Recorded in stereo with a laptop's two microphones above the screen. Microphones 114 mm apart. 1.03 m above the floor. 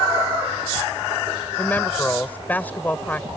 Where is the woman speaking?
15° left (ahead or behind).